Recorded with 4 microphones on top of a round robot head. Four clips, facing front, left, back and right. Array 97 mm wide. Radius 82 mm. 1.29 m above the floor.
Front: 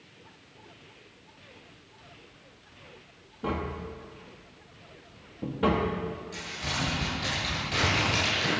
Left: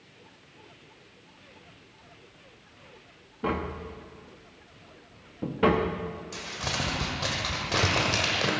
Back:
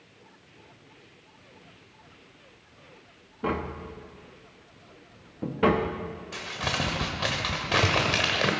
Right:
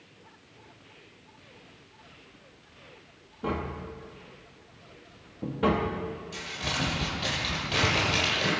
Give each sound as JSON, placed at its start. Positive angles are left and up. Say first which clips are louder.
{"t": 3.4, "sound": "tapping", "louder": "left 2 dB, back 2 dB", "azimuth_deg": 140, "distance_m": 0.7}
{"t": 6.3, "sound": "crumpling", "louder": "left 1 dB, back 4 dB", "azimuth_deg": 165, "distance_m": 1.5}